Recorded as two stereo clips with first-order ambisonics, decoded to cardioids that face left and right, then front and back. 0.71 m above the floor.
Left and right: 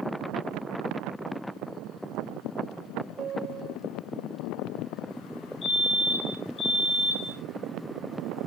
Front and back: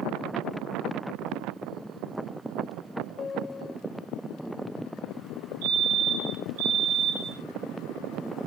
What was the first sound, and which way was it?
A piano, 45° right.